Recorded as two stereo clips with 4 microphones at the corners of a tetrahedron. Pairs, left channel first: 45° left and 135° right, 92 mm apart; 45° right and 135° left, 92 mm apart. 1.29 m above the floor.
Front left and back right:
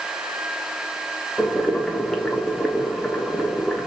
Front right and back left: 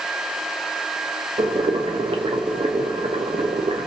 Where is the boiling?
125° left, 0.6 m.